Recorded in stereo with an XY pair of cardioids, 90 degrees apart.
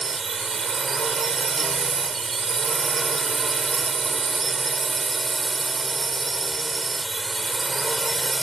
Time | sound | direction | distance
0.0 | a drone | 40° right | ?